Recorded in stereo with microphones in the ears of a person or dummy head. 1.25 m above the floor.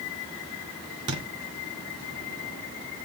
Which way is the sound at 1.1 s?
30° right (ahead or behind).